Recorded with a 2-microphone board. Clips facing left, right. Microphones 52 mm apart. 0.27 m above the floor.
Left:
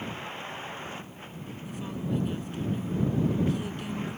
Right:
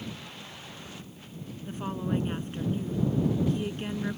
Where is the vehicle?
35° left (ahead or behind); by 4.2 s 40° left (ahead or behind).